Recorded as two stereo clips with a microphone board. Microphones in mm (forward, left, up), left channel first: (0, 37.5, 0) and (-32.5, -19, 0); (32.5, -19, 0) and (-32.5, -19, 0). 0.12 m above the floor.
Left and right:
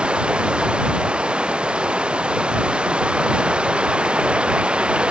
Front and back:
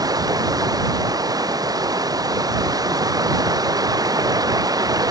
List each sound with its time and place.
0.0 s running water: 165° left